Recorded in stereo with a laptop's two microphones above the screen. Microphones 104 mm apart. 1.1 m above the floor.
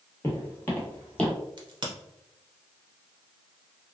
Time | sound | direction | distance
0.2 | footsteps | 25° left (ahead or behind) | 1.1 m
1.6 | a crack | 40° right (ahead or behind) | 0.7 m